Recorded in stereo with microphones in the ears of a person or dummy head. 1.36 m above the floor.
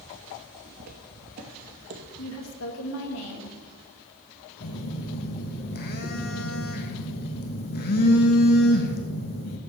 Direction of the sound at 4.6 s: 55° left (ahead or behind).